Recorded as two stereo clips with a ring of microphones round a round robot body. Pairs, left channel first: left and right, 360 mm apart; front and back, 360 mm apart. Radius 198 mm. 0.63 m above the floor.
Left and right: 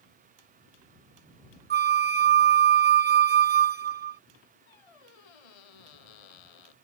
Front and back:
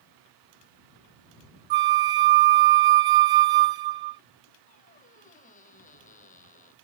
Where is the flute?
155° right.